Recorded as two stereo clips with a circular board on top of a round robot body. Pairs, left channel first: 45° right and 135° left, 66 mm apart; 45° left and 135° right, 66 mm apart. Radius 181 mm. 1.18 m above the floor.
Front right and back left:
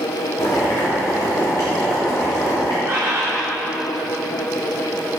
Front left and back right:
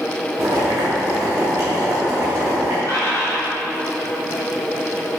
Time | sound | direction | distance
0.4 | boiling | 85° right | 0.8 m
2.9 | a bird | 80° left | 2 m